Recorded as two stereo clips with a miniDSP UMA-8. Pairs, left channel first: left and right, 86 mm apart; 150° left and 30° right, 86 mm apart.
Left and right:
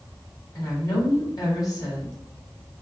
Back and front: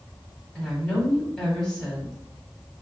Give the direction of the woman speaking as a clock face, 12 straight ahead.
10 o'clock.